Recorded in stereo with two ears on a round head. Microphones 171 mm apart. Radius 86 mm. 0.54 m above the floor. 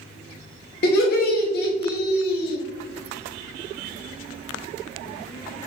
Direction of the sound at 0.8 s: 55° left (ahead or behind).